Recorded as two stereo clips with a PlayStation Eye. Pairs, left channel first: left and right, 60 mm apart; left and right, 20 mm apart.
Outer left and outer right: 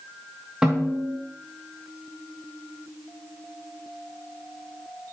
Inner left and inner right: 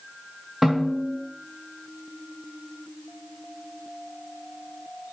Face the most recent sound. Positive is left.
turn(degrees=-15)  # may be behind; listen again after turning